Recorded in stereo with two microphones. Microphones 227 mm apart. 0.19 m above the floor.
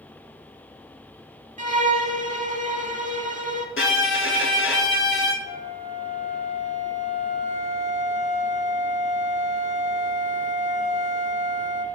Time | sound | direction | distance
1.6 | a violin | 35° right (ahead or behind) | 0.6 m
3.8 | a violin | 65° left (ahead or behind) | 0.7 m
5.4 | a flute | 35° right (ahead or behind) | 0.5 m